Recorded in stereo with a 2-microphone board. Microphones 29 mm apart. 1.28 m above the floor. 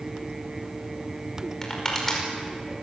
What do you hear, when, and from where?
1.6 s crushing: 20° left (ahead or behind), 5 m